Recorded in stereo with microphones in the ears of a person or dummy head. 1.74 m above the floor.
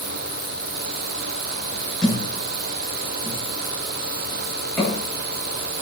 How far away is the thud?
About 7.5 m.